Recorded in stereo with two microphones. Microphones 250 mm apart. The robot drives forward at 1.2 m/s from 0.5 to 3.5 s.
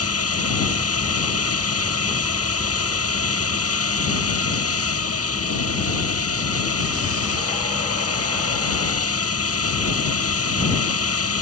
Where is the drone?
70° left (ahead or behind).